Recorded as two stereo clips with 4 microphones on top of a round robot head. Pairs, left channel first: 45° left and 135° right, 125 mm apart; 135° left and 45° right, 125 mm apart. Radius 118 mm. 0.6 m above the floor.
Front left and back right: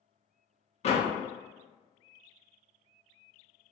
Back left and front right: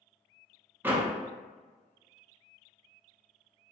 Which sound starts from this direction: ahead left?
A door slam, at 0.8 s.